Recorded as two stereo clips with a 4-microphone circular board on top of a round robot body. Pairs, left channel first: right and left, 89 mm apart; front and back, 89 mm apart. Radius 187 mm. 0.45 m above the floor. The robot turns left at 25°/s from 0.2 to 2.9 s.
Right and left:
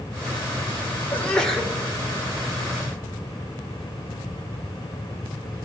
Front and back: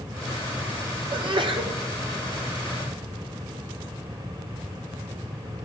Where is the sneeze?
160° right, 2.5 m; by 1.7 s straight behind, 2.5 m.